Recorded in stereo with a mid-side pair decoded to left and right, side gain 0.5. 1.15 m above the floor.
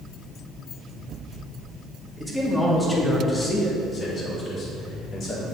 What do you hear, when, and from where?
2.2 s a man speaking: 5° left, 2.5 m; by 5.5 s 55° left, 3 m